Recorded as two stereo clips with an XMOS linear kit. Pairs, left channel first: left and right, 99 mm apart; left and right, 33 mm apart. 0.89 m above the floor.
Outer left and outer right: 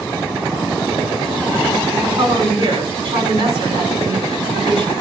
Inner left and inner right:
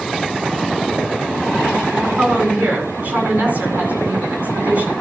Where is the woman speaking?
60° right (ahead or behind), 8 m.